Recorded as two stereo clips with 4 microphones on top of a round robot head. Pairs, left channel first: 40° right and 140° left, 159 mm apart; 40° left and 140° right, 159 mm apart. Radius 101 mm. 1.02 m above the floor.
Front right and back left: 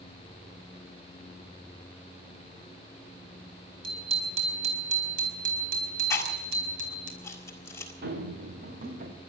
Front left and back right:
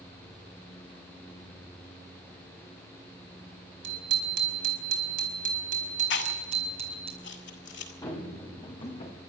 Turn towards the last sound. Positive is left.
turn(degrees=95)